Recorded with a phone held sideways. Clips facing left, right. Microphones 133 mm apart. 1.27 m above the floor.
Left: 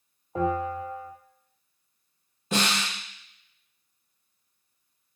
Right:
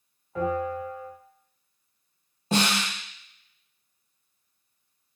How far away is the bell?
About 1.5 m.